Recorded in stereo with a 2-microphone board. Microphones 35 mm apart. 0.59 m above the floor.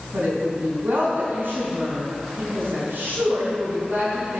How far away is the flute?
I don't hear a flute.